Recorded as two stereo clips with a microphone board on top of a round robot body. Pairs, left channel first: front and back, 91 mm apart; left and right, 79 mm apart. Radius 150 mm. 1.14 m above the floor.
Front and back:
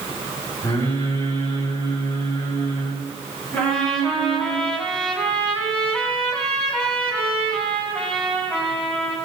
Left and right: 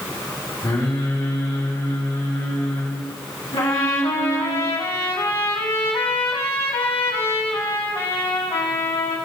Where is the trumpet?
80° left, 4.5 m.